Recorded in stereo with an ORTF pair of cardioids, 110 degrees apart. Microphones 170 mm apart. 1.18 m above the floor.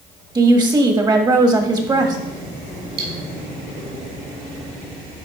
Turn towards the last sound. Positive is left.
turn(degrees=-55)